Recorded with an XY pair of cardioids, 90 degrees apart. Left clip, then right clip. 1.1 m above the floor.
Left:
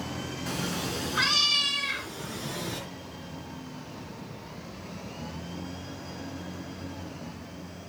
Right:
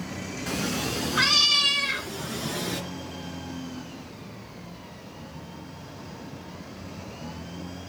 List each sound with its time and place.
0.5 s a cat meowing: 15° right, 3.5 m; by 2.8 s 35° right, 4 m